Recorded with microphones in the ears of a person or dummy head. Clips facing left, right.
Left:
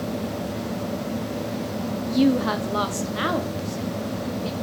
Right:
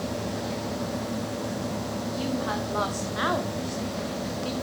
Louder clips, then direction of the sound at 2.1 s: Left 11 dB; 65° left (ahead or behind).